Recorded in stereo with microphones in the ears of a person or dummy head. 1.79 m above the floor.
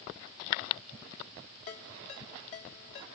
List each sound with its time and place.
1.7 s a ringtone: 50° left (ahead or behind), 1.8 m